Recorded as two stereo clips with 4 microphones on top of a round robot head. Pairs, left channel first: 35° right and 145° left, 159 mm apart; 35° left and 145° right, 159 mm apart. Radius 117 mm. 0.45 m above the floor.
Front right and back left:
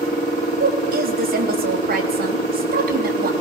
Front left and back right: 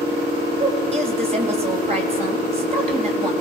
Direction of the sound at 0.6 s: 165° left.